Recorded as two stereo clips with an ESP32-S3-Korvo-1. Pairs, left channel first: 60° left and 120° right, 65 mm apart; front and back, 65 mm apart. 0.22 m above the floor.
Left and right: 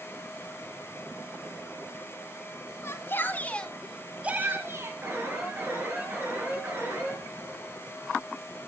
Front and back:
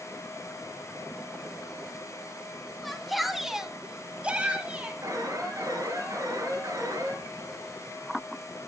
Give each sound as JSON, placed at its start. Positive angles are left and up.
{"t": 2.8, "sound": "a shout", "azimuth_deg": 90, "distance_m": 1.6}
{"t": 5.0, "sound": "an alarm", "azimuth_deg": -170, "distance_m": 4.0}